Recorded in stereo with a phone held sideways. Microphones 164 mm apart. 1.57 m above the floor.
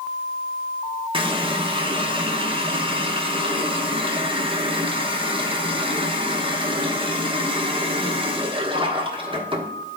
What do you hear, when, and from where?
1.1 s a running tap: 30° right (ahead or behind), 0.8 m